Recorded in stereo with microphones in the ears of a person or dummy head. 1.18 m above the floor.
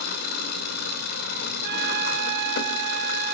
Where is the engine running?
55° left (ahead or behind), 2 m.